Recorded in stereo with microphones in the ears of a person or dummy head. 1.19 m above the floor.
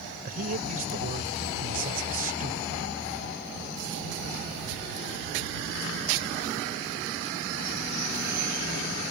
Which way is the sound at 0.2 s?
45° right (ahead or behind).